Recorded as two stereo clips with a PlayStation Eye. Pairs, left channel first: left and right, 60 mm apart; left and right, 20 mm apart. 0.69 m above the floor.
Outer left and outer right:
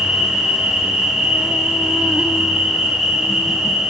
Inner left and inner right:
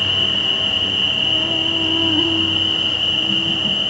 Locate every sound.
0.0 s an insect: 10° right (ahead or behind), 1.2 m